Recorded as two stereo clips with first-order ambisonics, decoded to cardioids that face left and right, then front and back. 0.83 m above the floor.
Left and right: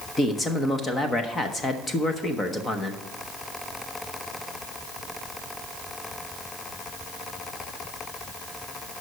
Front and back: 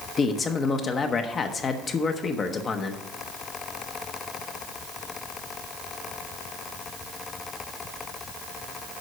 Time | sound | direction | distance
0.2 | a man speaking | 35° left | 0.8 m